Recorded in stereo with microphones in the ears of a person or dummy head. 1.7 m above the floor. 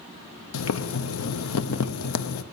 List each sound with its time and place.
0.5 s boiling: 85° left, 0.8 m